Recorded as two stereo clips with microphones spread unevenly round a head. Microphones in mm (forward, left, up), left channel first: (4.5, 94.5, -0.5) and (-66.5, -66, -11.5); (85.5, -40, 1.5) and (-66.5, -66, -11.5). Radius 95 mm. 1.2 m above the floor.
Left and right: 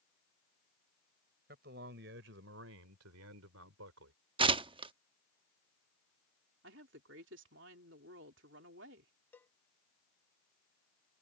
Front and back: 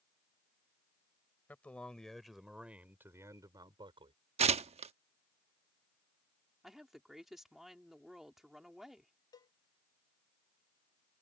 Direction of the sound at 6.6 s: 80° right.